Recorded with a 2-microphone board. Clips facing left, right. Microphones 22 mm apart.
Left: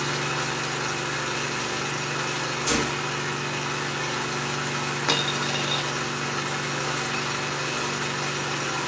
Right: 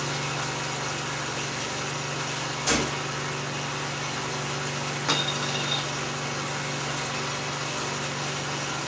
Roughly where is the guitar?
No guitar in this recording.